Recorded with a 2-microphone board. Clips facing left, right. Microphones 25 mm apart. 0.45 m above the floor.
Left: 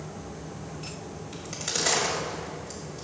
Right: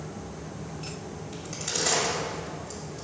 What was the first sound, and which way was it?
A crack, 20° left (ahead or behind).